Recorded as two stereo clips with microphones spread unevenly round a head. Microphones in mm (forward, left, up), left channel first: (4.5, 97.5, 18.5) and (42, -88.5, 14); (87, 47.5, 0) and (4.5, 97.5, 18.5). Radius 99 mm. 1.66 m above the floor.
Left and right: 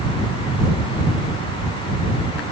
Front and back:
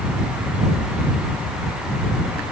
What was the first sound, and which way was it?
Only background noise.